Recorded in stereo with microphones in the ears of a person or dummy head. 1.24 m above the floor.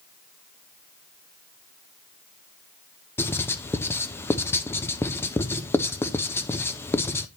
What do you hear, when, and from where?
3.2 s writing: 10° left (ahead or behind), 0.5 m